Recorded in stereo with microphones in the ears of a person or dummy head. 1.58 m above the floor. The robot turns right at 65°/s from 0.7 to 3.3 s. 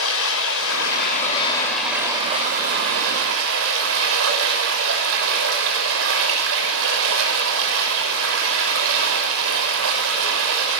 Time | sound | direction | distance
0.0 | running water | 110° left | 6.5 m